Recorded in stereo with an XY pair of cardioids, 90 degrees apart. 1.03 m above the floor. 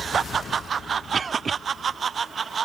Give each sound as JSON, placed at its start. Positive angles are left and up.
{"t": 1.1, "sound": "a cough", "azimuth_deg": -45}